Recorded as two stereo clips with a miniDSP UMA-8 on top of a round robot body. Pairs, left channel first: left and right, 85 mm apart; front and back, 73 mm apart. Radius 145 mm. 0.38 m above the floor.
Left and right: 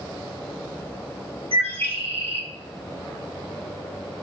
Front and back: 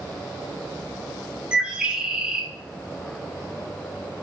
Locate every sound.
1.5 s a bird: 105° right, 2.5 m